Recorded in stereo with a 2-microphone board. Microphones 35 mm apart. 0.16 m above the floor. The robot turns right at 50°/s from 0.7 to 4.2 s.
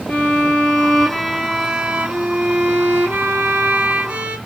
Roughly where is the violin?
Behind left.